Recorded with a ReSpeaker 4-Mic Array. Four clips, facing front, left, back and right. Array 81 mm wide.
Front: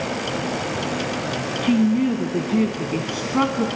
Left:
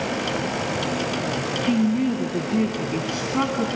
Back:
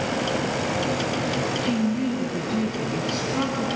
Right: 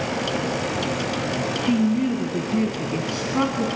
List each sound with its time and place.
1.6 s a woman speaking: straight ahead, 1.5 m